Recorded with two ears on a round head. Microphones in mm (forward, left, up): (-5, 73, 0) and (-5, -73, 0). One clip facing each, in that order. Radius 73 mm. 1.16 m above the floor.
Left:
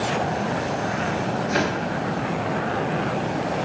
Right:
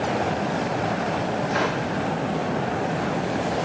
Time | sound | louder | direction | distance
1.5 | a whoosh | left 1 dB | 50° left (ahead or behind) | 6 m